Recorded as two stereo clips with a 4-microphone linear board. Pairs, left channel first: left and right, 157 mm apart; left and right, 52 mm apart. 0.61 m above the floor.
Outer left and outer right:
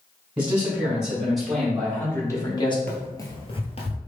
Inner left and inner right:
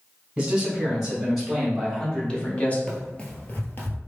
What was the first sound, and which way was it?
A man speaking, 10° right (ahead or behind).